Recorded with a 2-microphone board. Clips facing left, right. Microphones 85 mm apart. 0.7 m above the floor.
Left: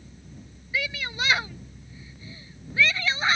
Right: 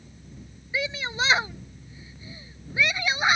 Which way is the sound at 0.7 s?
25° right (ahead or behind).